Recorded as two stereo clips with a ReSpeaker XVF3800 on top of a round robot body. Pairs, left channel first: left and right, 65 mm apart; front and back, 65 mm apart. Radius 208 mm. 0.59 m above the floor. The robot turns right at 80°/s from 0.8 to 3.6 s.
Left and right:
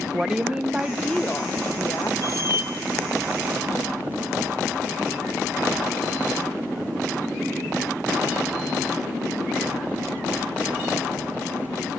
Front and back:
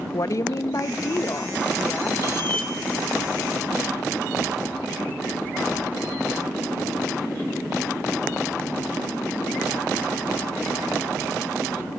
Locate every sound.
0.1 s a woman speaking: 15° right, 1.1 m; by 2.1 s 90° left, 1.1 m
2.2 s a squeak: 40° left, 1.1 m; by 2.7 s 80° left, 1.1 m